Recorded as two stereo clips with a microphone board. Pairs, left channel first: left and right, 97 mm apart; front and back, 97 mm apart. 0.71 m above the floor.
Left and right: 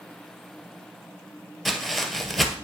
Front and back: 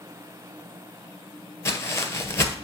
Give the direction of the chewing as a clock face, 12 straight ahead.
I don't hear chewing.